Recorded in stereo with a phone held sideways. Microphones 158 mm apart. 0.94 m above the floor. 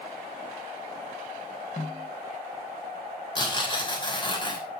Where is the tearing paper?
30° left (ahead or behind), 3 m.